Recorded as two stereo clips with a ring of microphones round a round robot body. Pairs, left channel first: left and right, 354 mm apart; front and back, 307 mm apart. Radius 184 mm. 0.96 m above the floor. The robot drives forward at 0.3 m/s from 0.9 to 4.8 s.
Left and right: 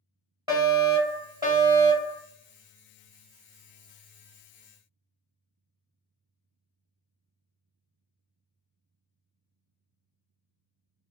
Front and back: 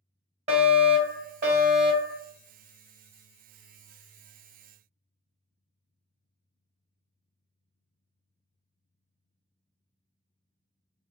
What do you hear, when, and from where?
0.5 s a fire alarm: 150° right, 1.2 m; by 2.2 s 165° right, 1.4 m